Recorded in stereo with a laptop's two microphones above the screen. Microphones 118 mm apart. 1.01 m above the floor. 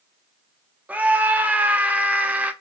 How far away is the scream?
About 0.8 m.